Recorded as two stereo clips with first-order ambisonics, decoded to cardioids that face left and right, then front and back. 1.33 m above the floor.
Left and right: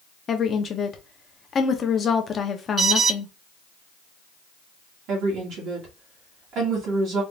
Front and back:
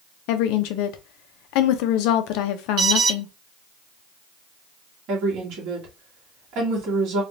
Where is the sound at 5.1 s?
135° right, 2.0 m.